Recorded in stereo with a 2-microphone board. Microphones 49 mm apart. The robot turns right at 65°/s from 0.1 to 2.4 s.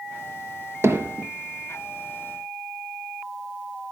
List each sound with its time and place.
0.8 s hammering: 60° right (ahead or behind), 1.2 m; by 1.3 s 35° right (ahead or behind), 1.2 m